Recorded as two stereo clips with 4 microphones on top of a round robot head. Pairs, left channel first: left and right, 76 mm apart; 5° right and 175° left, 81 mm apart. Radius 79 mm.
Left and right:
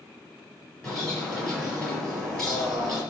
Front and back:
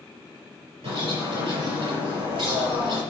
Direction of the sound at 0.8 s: 175° left.